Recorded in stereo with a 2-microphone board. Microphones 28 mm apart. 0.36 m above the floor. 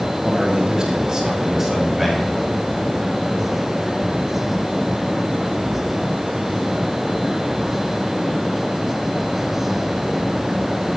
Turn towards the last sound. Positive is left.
turn(degrees=0)  # may be behind; listen again after turning